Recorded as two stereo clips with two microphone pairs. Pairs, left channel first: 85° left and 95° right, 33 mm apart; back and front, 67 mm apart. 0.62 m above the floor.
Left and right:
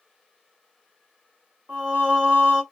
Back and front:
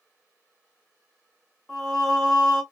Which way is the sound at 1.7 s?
90° right.